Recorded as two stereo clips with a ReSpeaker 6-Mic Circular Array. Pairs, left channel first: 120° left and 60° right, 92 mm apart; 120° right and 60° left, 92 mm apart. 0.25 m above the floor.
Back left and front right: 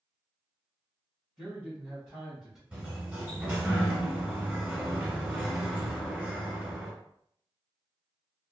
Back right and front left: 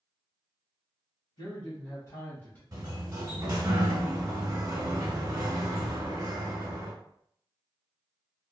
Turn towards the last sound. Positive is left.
turn(degrees=10)